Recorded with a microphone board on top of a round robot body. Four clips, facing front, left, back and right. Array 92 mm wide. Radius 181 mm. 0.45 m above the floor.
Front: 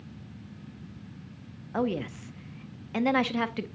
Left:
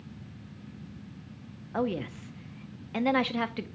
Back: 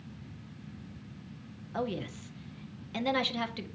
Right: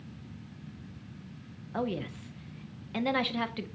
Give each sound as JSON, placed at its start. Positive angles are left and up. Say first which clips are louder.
{"t": 1.7, "sound": "a woman speaking", "louder": "left 3 dB, front 5 dB", "azimuth_deg": 25, "distance_m": 0.8}